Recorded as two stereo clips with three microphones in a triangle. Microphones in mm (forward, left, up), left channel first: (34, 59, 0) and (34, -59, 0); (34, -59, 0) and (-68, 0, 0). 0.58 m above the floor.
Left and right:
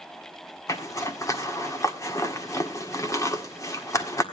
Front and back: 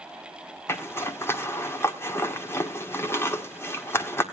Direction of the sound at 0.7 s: 35° left.